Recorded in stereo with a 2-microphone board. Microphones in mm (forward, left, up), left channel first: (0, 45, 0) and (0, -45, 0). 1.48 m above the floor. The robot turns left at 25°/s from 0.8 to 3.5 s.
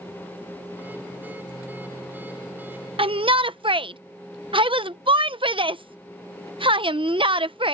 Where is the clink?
No clink in this recording.